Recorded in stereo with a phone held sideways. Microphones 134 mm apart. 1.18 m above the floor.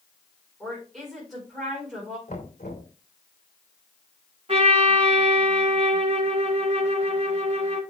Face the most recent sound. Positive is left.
turn(degrees=-45)  # may be behind; listen again after turning